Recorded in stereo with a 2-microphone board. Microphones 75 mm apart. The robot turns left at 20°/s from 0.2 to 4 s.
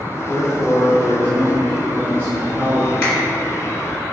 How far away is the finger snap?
About 1.4 m.